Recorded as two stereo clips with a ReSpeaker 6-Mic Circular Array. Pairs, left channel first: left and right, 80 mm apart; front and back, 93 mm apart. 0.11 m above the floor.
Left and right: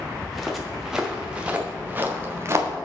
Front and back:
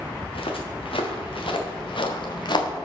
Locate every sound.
0.2 s footsteps: 5° left, 2.5 m; by 2.7 s 35° right, 1.7 m